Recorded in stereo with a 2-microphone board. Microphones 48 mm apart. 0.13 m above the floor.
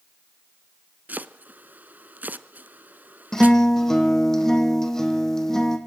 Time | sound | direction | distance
1.1 | chopping | 35° right (ahead or behind) | 0.6 m
3.3 | a guitar | 10° left (ahead or behind) | 2.5 m